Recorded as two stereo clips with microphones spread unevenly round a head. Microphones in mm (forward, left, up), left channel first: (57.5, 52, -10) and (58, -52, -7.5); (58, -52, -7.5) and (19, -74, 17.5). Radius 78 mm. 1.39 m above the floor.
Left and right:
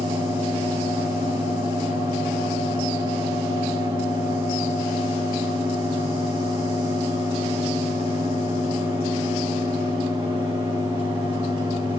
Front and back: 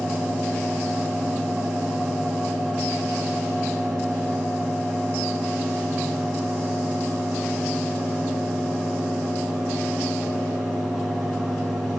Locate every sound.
0.0 s a fan: 80° right, 4 m